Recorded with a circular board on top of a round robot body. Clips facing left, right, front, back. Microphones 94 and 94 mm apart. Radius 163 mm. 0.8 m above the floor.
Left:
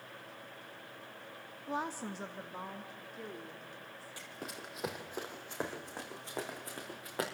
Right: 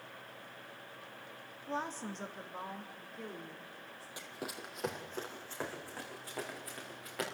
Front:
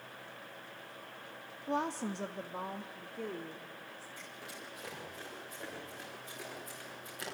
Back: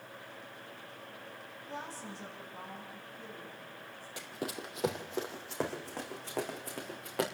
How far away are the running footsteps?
About 1.8 m.